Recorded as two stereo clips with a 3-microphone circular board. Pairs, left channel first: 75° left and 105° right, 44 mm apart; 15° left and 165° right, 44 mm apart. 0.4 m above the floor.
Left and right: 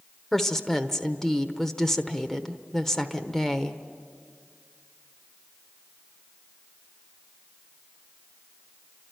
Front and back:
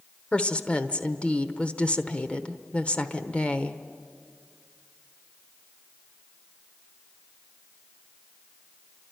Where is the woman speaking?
5° left, 1.0 m.